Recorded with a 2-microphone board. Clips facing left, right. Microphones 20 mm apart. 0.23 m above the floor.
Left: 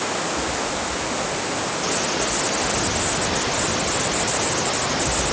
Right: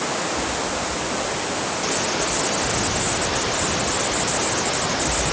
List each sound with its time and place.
Only background noise.